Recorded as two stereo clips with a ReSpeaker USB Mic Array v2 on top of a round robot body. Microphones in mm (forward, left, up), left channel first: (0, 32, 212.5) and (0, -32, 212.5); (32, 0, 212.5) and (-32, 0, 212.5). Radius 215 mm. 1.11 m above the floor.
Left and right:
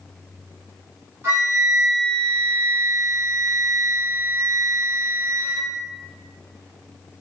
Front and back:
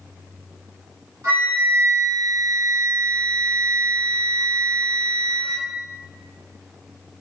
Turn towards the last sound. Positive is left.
turn(degrees=-145)